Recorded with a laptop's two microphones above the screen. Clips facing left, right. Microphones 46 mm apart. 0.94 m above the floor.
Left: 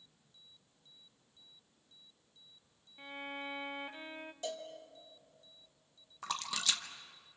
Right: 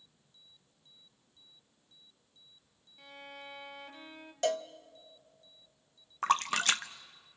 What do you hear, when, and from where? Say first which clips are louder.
3.0 s a violin: left 5 dB; 25° left (ahead or behind), 1.0 m
4.4 s a cowbell: right 11 dB; 75° right (ahead or behind), 0.7 m
6.2 s a splash: right 9 dB; 50° right (ahead or behind), 0.8 m